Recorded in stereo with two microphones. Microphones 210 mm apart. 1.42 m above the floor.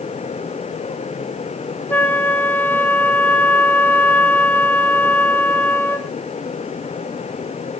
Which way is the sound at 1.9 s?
10° left (ahead or behind).